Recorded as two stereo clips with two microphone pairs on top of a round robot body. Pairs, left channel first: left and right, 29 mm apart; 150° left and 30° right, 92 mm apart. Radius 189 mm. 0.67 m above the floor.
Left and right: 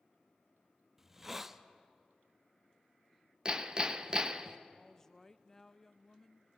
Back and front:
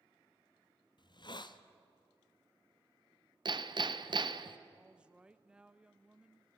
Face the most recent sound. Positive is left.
turn(degrees=45)